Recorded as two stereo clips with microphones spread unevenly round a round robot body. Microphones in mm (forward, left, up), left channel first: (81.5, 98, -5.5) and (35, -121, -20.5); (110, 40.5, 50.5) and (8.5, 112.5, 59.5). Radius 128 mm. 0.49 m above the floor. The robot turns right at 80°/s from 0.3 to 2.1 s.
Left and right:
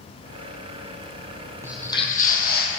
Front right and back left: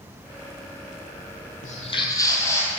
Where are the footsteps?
25° right, 0.9 m; by 2.7 s 35° left, 1.4 m.